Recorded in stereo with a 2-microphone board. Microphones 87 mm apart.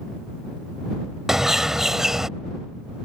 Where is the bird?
5° right (ahead or behind).